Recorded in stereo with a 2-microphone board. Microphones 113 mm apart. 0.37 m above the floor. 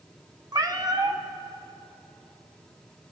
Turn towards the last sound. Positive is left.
turn(degrees=-35)  # may be behind; listen again after turning